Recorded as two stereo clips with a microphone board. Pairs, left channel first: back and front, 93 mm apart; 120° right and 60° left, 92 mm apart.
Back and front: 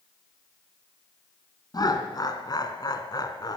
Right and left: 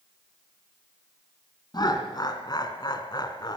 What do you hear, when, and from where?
1.7 s laughter: 150° right, 2.5 m